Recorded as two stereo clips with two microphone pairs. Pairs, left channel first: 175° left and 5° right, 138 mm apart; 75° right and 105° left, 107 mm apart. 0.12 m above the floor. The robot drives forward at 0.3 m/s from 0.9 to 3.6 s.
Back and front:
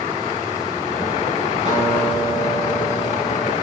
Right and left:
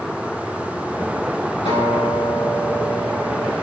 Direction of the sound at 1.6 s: 45° right.